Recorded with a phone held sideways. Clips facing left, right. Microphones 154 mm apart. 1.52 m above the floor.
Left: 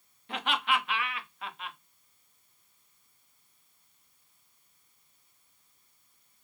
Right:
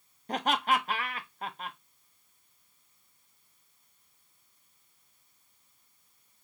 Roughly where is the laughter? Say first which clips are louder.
Right 3 dB; right.